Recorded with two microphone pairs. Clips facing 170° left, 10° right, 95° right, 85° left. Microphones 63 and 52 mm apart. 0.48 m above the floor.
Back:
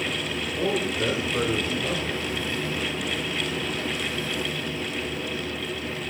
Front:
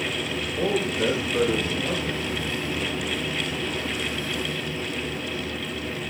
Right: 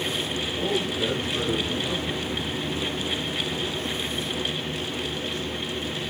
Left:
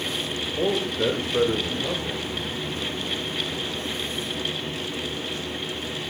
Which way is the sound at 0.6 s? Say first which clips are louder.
Front 2 dB, left 3 dB; 70° left.